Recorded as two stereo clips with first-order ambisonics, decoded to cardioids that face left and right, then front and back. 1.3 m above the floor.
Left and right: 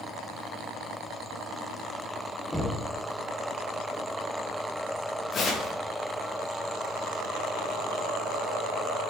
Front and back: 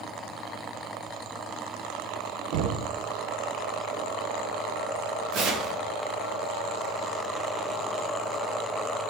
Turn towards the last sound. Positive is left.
turn(degrees=150)